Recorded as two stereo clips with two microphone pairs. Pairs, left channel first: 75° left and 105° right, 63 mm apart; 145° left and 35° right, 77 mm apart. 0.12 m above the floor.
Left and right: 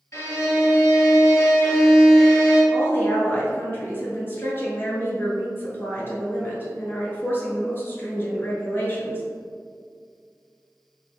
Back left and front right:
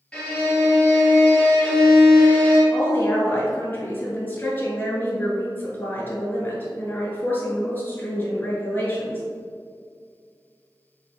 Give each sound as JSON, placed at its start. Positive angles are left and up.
{"t": 0.1, "sound": "a violin", "azimuth_deg": 65, "distance_m": 1.6}
{"t": 2.7, "sound": "a woman speaking", "azimuth_deg": 95, "distance_m": 1.3}